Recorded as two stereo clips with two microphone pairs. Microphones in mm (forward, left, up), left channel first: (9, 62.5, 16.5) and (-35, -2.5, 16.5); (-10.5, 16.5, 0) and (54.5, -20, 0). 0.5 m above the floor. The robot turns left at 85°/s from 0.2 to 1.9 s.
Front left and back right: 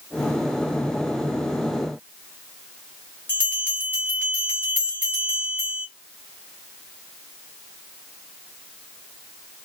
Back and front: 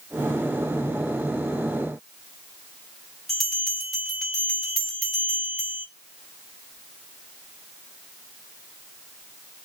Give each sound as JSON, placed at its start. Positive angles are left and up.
{"t": 3.3, "sound": "a bell", "azimuth_deg": 65, "distance_m": 1.4}